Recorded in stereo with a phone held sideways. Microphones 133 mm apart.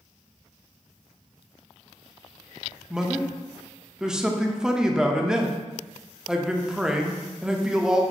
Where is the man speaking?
5° right (ahead or behind), 0.5 m.